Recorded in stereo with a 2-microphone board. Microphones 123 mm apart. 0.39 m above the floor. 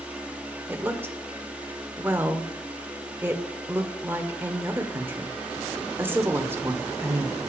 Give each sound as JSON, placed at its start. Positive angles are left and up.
{"t": 0.7, "sound": "a woman speaking", "side_deg": -15, "distance_m": 0.9}